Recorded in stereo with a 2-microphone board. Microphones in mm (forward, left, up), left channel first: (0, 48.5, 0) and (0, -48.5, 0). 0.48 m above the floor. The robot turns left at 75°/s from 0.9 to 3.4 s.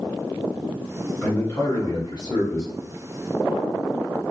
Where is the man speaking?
155° left, 1.8 m; by 2.7 s 45° left, 1.8 m.